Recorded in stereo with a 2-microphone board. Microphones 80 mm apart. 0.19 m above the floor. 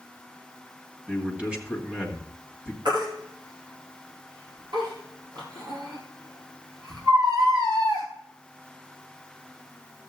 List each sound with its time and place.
1.1 s a man speaking: 15° right (ahead or behind), 1.9 m
2.9 s a baby crying: 75° right (ahead or behind), 2.5 m